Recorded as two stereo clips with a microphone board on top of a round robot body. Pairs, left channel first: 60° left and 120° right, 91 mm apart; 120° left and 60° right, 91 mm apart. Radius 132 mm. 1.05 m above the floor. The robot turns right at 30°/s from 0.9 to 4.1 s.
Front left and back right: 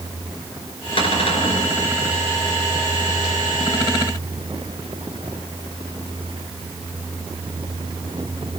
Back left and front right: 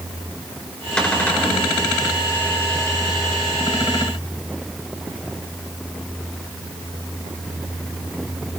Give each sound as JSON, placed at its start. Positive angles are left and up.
{"t": 1.0, "sound": "a cupboard door", "azimuth_deg": 40, "distance_m": 5.0}